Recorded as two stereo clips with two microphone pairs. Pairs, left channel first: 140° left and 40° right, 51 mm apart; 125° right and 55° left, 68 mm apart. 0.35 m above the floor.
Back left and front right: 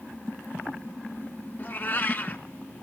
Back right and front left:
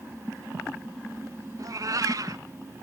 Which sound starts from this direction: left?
A cat meowing, at 1.6 s.